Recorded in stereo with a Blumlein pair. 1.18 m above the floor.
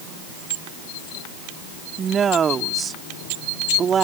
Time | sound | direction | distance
2.0 | a woman speaking | 20° right | ?